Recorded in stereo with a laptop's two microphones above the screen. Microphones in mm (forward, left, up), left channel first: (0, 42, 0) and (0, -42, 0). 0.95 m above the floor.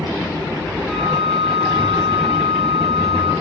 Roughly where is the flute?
Centre.